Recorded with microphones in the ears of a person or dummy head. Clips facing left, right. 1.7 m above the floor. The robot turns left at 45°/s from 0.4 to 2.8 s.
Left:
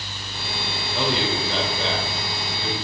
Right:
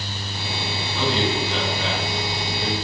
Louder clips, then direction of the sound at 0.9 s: Right 1 dB; 60° left.